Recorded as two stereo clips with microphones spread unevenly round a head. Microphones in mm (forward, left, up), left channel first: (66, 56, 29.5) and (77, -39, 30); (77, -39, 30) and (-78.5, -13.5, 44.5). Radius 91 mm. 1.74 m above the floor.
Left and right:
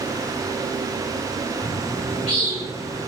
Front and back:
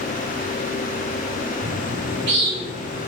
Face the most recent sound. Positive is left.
turn(degrees=150)